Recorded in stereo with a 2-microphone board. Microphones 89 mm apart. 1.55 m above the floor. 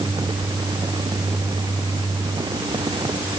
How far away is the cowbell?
No cowbell in this recording.